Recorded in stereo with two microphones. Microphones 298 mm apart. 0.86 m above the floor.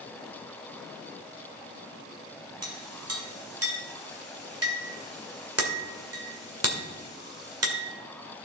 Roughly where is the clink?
Right.